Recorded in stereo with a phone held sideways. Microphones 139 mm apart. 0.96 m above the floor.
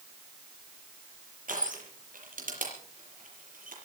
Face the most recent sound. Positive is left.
turn(degrees=-75)  # may be behind; listen again after turning